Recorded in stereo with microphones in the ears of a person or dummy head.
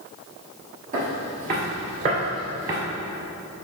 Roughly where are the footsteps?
Right.